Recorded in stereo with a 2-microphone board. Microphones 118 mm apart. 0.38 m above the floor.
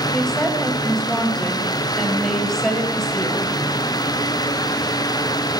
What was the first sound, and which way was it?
A woman speaking, 5° left (ahead or behind).